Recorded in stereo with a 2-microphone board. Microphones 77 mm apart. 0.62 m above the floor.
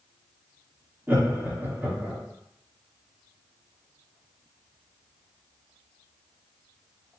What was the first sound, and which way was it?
Laughter, 25° right (ahead or behind).